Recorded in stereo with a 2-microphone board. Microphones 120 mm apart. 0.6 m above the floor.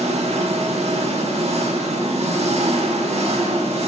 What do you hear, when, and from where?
0.0 s an engine running: 65° right (ahead or behind), 0.9 m